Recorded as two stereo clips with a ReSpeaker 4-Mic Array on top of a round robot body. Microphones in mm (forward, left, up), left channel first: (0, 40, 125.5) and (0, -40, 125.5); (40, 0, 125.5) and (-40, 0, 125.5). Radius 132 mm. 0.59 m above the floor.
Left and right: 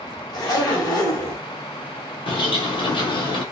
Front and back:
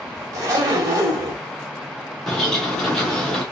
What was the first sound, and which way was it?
A zipper, 130° left.